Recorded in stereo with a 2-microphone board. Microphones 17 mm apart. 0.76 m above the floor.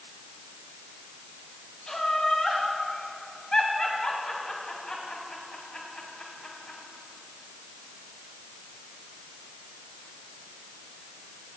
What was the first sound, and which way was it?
Laughter, 45° left (ahead or behind).